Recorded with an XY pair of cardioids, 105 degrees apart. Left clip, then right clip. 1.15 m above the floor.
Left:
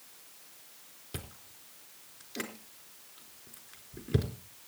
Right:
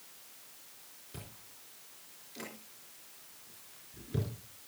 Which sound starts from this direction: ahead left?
Chewing, at 1.1 s.